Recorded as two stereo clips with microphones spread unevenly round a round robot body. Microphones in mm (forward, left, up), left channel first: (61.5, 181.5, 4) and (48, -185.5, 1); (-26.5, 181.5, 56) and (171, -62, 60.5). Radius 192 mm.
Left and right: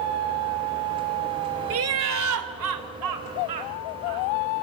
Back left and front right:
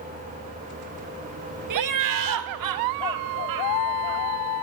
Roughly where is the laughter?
Ahead right.